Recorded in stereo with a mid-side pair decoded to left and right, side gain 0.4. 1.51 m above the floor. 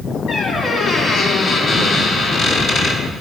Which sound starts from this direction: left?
A squeak, at 0.3 s.